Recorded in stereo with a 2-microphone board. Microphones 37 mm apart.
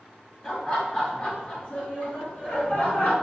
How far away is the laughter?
About 1.2 m.